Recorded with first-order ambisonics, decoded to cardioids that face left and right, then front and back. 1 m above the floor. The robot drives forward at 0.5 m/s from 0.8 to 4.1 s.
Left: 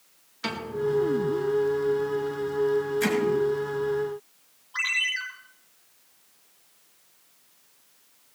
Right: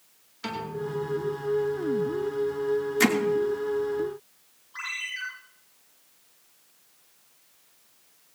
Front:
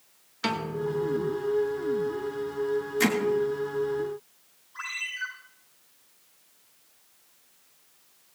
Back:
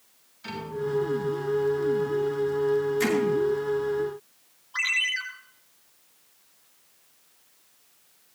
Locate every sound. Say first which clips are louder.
0.4 s a piano: left 4 dB, front 2 dB; 10° left, 2.5 m
3.0 s hammering: right 7 dB, even; 75° right, 2.5 m
4.7 s a ringtone: left 7 dB, back 9 dB; 160° left, 7 m